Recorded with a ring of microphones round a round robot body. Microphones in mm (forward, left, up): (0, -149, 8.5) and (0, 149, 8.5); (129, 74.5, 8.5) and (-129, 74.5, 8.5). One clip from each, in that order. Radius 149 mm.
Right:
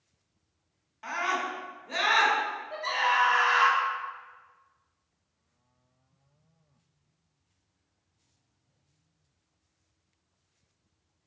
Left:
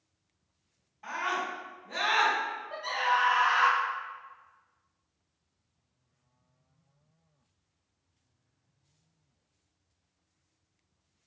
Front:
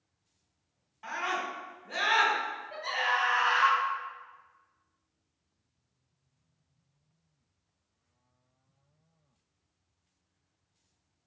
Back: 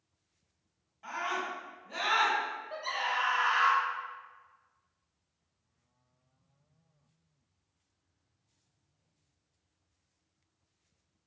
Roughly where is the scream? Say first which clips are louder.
Right 2 dB, front 2 dB; ahead right.